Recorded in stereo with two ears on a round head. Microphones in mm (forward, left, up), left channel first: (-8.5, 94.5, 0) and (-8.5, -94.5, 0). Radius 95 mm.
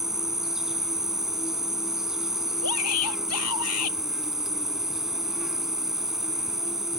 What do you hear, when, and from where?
0.0 s an insect: centre (ahead or behind)
2.6 s a shout: 80° left